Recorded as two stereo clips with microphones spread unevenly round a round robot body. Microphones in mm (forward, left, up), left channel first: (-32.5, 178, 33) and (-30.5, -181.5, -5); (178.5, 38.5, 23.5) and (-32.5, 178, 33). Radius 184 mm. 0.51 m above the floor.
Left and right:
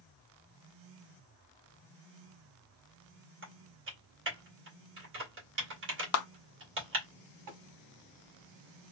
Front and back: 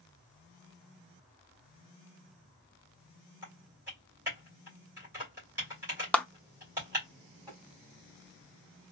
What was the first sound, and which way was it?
Typing on a keyboard, 130° right.